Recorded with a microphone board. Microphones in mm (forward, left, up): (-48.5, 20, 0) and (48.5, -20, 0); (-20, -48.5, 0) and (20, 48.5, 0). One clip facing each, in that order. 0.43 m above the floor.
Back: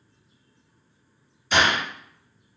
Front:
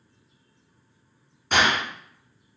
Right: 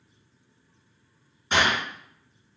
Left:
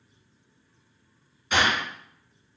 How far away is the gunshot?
About 1.2 m.